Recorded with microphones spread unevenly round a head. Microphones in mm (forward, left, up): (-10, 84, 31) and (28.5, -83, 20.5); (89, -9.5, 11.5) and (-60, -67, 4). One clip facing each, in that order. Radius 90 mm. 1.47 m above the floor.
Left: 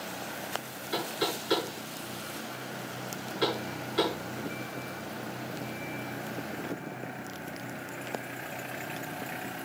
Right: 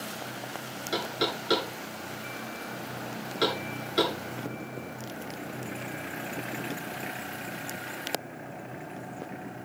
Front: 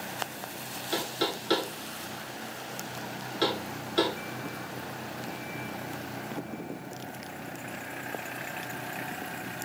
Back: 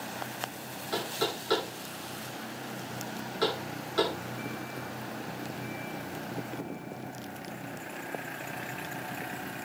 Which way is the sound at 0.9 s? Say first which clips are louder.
Right 1 dB, front 1 dB; 40° right.